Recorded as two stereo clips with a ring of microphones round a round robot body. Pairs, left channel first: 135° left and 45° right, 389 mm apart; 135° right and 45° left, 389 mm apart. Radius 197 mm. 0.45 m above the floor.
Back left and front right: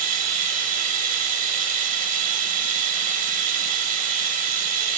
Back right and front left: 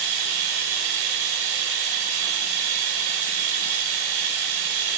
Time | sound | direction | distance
0.0 | running water | 25° left | 1.0 m